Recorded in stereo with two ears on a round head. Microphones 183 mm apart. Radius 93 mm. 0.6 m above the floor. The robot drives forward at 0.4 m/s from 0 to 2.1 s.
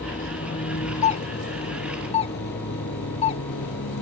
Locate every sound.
0.0 s a vehicle: 45° left (ahead or behind); by 4.0 s 70° left (ahead or behind)
1.0 s a doorbell: 35° left (ahead or behind); by 3.4 s 30° left (ahead or behind)